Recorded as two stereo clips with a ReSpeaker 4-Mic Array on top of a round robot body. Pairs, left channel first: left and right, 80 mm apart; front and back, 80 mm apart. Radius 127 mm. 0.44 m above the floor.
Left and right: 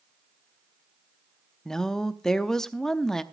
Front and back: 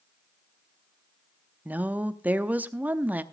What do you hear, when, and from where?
1.6 s a woman speaking: 165° left, 0.9 m